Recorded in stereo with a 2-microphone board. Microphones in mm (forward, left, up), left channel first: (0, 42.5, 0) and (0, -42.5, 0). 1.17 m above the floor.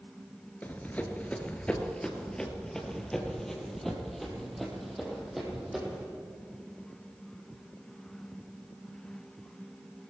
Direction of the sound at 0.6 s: 20° left (ahead or behind).